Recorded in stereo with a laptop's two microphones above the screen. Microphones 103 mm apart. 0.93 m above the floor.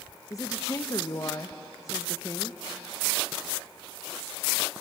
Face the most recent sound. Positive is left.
turn(degrees=35)  # may be behind; listen again after turning